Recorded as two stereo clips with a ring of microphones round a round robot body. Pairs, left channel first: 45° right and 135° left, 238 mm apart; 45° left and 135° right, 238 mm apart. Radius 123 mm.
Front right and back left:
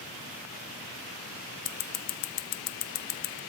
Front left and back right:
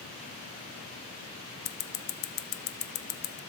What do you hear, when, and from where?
1.6 s scissors: 5° right, 0.5 m